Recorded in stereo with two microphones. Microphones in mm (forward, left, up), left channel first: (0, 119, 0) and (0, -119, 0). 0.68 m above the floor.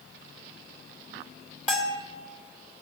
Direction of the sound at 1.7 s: 30° left (ahead or behind).